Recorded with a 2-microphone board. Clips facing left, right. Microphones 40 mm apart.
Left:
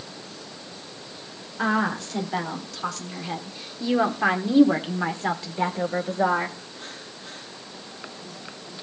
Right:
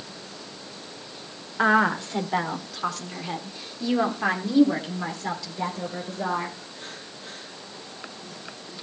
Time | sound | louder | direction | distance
1.6 | a woman speaking | right 4 dB | 25° right (ahead or behind) | 2 m